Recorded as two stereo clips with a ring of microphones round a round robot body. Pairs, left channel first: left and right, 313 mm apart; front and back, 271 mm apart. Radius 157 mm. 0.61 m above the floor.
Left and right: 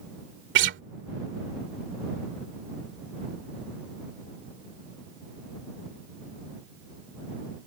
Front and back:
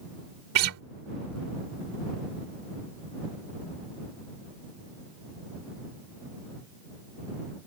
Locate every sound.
0.6 s a guitar: 140° right